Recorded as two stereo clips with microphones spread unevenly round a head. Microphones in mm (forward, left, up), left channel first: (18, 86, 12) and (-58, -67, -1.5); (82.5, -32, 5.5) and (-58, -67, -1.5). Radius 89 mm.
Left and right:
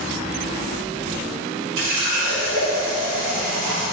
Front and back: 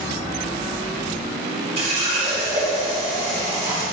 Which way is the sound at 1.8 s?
120° right.